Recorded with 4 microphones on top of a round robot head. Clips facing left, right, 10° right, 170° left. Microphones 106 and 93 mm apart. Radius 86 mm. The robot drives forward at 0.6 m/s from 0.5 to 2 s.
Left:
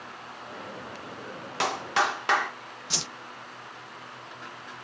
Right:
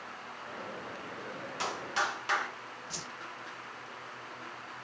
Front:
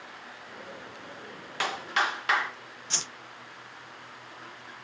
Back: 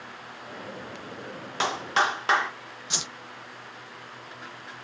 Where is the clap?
110° left, 2.5 m; by 2.5 s 115° left, 2.5 m.